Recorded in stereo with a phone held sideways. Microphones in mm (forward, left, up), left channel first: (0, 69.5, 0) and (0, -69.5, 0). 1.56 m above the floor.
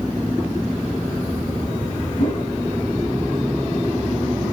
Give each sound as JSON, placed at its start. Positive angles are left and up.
{"t": 2.2, "sound": "a whoosh", "side_deg": 70, "distance_m": 3.5}